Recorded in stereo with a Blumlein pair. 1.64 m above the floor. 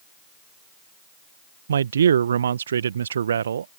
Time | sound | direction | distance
1.7 | a man speaking | 70° right | ?